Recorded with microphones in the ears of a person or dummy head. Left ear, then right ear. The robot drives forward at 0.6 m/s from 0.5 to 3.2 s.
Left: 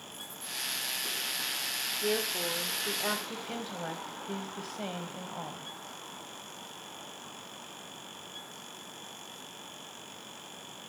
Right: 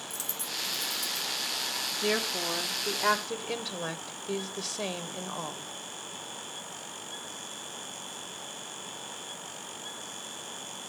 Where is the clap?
No clap in this recording.